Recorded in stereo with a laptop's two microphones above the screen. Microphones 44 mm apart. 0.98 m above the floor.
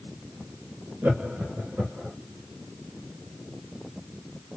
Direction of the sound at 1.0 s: 50° right (ahead or behind).